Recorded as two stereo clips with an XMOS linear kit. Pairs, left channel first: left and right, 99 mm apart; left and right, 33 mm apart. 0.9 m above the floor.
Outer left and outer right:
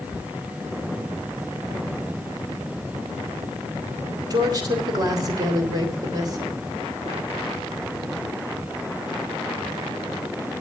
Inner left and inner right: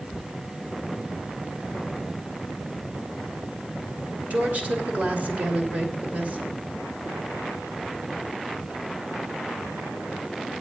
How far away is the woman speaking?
About 3 m.